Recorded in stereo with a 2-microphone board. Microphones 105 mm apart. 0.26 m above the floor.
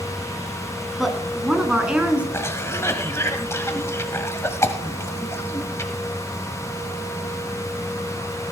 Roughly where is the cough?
Left.